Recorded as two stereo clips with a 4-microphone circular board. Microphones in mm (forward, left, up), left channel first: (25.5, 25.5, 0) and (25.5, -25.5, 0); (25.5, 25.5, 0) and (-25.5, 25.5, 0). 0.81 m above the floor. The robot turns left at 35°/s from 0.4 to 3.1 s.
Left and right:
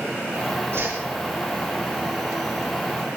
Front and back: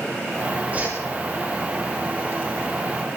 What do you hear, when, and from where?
0.7 s a whoosh: 125° right, 6.5 m; by 1.0 s 130° right, 6.5 m